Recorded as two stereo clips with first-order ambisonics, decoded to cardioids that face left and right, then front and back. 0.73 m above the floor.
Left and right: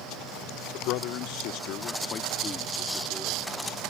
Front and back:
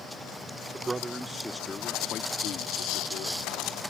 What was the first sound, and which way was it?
A man speaking, 110° left.